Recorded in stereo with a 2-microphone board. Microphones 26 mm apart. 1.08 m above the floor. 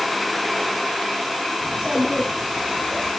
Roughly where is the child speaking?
Right.